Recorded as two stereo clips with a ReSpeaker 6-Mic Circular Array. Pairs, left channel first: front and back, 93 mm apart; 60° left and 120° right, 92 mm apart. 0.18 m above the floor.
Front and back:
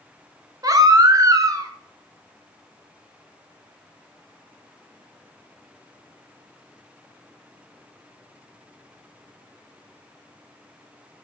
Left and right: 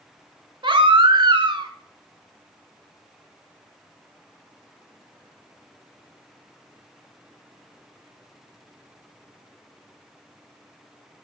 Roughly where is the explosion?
I don't hear an explosion.